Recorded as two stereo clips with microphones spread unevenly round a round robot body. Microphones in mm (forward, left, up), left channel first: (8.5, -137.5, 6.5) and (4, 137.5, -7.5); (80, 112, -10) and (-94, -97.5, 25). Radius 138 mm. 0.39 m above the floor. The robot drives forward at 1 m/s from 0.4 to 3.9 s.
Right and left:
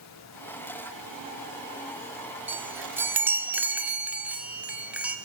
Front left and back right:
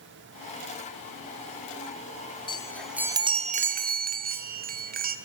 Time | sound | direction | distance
2.5 | a chime | 20° left | 0.9 m